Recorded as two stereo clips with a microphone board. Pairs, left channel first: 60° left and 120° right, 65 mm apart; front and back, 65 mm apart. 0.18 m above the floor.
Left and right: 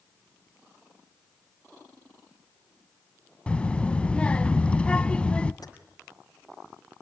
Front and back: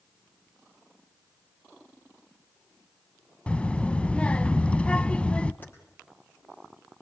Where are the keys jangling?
60° left, 4.5 m.